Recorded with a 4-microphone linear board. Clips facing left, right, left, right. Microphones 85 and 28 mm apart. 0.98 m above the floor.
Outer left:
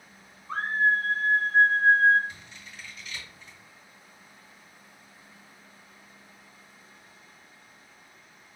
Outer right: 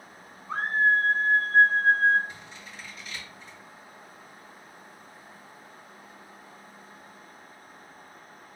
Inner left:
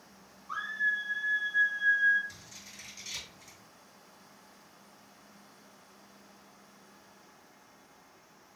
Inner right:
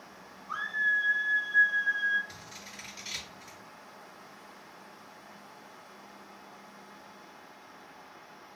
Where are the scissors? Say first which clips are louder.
Outer right 2 dB, inner right 4 dB; 40° right (ahead or behind), 2.5 m.